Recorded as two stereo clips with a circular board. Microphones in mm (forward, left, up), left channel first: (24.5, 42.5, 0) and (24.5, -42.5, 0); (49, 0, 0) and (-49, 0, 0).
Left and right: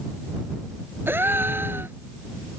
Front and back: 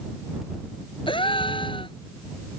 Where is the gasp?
25° right.